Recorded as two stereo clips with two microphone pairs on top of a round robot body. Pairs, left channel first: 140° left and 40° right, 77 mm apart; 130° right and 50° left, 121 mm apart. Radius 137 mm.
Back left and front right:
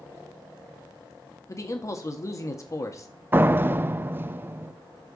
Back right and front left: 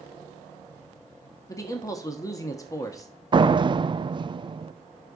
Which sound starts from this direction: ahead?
A door slam, at 3.3 s.